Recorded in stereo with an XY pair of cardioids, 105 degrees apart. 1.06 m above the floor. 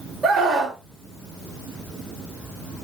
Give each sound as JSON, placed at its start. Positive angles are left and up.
{"t": 0.2, "sound": "a scream", "azimuth_deg": -50, "distance_m": 3.5}